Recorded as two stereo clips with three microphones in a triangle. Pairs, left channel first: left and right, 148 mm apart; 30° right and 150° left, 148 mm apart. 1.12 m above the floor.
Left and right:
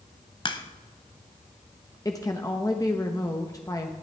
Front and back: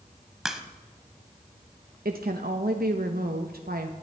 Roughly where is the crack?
Ahead left.